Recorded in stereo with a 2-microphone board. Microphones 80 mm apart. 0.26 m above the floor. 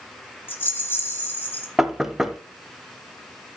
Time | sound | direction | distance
0.5 | a rattle | 25° left (ahead or behind) | 2 m
1.8 | knocking | 5° right (ahead or behind) | 0.8 m